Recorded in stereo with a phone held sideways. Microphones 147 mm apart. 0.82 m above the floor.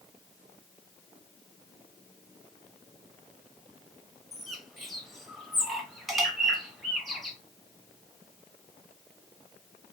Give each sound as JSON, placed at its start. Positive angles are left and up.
{"t": 4.3, "sound": "a bird", "side_deg": 0, "distance_m": 0.8}